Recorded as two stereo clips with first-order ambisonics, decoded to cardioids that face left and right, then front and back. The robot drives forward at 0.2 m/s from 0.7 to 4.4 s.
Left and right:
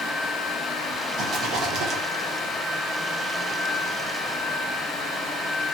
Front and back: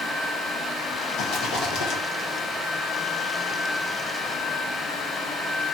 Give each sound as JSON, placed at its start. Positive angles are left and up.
{"t": 1.2, "sound": "a rattle", "azimuth_deg": -40, "distance_m": 1.2}